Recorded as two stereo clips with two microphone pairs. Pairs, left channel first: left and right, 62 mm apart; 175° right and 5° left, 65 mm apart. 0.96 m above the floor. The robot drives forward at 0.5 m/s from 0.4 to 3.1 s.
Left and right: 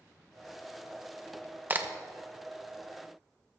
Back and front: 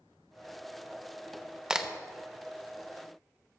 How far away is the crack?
About 0.8 m.